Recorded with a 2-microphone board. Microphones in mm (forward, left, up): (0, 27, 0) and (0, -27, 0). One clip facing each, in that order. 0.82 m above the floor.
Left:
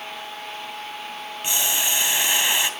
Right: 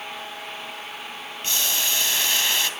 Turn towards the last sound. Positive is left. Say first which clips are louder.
# left 1 dB
turn(degrees=20)  # may be behind; listen again after turning